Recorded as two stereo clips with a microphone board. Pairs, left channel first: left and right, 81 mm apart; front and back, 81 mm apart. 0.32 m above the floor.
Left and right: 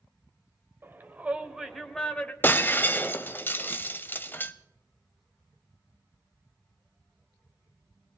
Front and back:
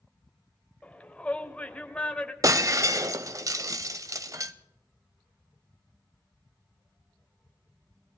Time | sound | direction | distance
0.8 | a shout | 60° right | 1.5 m
2.4 | breaking glass | 150° left | 0.7 m